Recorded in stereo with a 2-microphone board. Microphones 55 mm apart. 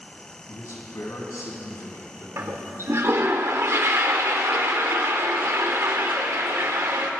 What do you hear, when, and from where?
0.5 s a man speaking: 70° left (ahead or behind), 4 m; by 3.3 s 80° left, 7.5 m
2.4 s a toilet flushing: 55° right (ahead or behind), 1.2 m